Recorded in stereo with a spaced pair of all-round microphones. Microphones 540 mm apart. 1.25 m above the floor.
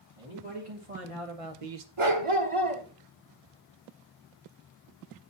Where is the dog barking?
60° right (ahead or behind), 1.5 m.